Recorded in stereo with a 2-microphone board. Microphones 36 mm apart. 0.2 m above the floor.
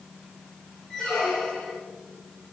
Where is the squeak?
10° left (ahead or behind), 4.5 m.